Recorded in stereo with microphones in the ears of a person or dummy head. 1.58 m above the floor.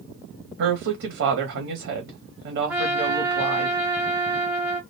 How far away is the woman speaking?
About 1.2 m.